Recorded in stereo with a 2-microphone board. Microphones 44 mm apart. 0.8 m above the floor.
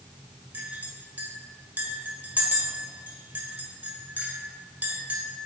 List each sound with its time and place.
0.5 s a clink: 35° right (ahead or behind), 2.5 m